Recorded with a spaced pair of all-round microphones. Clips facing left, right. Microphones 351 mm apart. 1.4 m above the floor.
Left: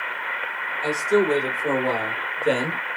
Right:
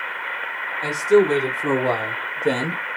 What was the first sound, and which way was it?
A man speaking, 80° right.